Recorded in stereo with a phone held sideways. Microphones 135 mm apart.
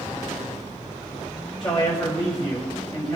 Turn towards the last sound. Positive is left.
turn(degrees=35)  # may be behind; listen again after turning